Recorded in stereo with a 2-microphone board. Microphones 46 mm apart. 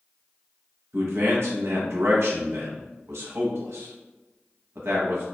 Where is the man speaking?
80° right, 0.7 m.